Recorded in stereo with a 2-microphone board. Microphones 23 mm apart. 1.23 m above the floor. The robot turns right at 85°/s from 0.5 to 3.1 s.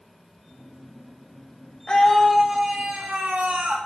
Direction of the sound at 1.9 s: 145° left.